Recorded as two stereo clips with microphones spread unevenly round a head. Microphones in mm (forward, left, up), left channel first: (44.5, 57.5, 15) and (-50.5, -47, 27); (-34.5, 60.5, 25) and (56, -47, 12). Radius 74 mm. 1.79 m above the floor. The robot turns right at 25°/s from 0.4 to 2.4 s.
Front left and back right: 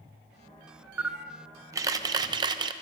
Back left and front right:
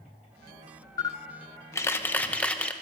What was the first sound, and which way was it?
A camera shutter, 165° left.